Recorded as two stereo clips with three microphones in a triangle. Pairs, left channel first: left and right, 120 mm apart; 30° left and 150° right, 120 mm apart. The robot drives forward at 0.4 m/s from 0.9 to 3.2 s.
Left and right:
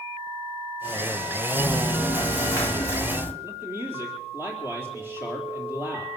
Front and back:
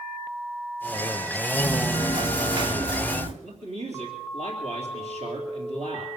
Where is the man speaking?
160° right, 3.5 m.